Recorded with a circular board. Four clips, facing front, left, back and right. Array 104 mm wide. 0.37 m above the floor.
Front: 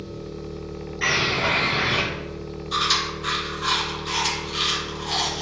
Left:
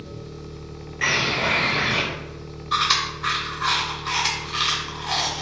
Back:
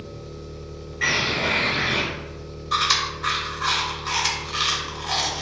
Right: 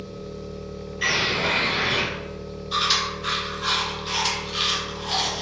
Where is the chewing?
135° left, 0.7 m.